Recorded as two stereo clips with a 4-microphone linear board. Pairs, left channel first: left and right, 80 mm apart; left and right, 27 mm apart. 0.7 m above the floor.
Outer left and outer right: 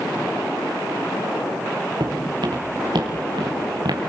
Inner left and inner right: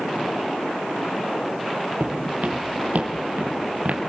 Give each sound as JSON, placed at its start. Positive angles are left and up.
{"t": 2.0, "sound": "footsteps", "side_deg": -80, "distance_m": 5.5}